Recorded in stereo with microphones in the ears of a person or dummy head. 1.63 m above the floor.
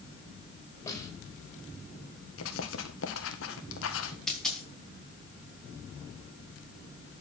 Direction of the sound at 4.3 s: Centre (ahead or behind).